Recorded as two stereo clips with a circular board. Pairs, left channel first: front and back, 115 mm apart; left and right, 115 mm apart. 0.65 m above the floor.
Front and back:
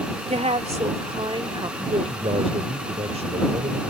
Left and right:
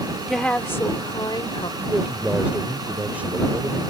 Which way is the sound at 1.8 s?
165° right.